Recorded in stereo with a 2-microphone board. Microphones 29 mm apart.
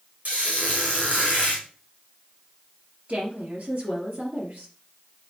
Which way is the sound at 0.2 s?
60° right (ahead or behind).